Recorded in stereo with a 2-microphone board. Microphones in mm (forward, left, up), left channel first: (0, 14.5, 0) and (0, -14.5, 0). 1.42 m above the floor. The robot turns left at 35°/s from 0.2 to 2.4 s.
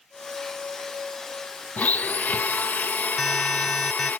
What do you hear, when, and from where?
1.8 s a blender: 70° left (ahead or behind); by 4.2 s 75° left (ahead or behind)
3.2 s an alarm: centre (ahead or behind)